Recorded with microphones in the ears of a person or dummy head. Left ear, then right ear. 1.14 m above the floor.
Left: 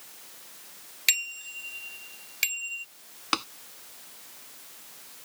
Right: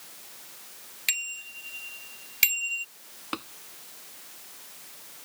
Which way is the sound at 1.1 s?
15° left (ahead or behind).